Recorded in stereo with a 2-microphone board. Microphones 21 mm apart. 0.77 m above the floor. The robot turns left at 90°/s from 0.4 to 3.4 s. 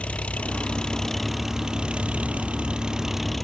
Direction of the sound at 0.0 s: 85° left.